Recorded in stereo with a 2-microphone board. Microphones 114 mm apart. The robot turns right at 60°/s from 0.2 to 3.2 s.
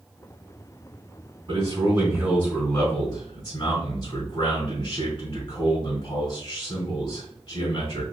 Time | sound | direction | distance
1.5 | a man speaking | 50° right | 3 m